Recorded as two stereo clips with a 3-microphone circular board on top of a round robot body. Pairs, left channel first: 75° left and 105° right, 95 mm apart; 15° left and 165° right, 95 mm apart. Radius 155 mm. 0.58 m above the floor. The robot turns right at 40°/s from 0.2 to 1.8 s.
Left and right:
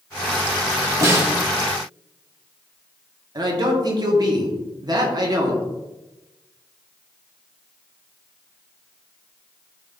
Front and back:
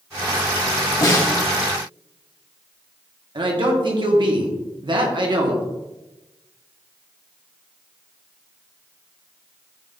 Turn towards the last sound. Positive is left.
turn(degrees=-140)